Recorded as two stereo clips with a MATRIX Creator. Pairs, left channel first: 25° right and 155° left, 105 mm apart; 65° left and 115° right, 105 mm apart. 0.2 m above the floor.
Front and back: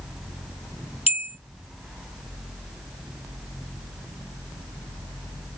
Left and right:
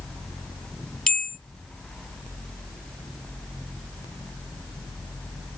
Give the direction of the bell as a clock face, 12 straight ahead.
1 o'clock.